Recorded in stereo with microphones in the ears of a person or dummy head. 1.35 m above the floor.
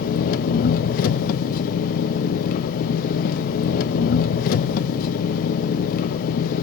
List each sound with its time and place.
0.0 s an engine running: 55° left (ahead or behind), 0.8 m